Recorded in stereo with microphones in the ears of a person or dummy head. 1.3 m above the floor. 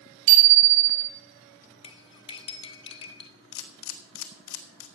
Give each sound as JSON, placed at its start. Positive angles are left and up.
{"t": 0.3, "sound": "a bicycle bell", "side_deg": -65, "distance_m": 4.0}
{"t": 1.8, "sound": "cutlery clinking", "side_deg": 30, "distance_m": 0.7}
{"t": 3.5, "sound": "a camera shutter", "side_deg": 60, "distance_m": 1.1}